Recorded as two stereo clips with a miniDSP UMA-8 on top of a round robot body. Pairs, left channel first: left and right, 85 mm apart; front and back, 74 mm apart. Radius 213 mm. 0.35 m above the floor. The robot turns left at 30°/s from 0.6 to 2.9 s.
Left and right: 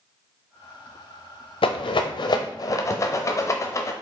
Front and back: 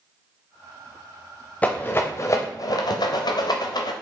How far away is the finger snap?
No finger snap in this recording.